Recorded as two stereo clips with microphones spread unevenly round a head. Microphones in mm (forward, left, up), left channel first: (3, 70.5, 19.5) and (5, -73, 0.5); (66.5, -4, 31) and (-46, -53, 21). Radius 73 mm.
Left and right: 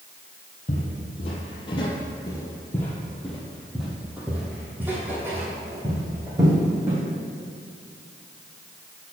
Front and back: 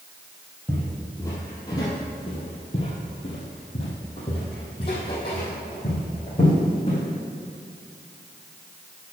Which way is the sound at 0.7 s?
95° left.